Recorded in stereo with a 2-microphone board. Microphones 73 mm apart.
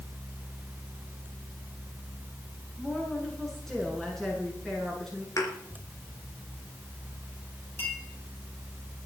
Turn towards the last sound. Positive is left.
turn(degrees=30)  # may be behind; listen again after turning